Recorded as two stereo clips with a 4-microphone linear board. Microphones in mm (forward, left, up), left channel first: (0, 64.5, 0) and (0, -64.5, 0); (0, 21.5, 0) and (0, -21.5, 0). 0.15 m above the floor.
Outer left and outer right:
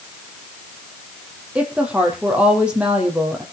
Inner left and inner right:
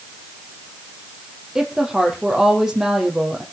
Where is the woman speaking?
10° right (ahead or behind), 4 m.